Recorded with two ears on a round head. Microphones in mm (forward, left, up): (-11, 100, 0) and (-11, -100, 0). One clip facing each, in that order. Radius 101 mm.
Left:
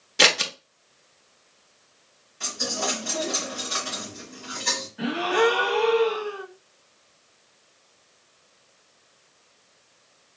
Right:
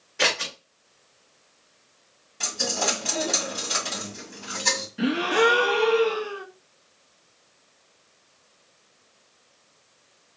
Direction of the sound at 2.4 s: 70° right (ahead or behind).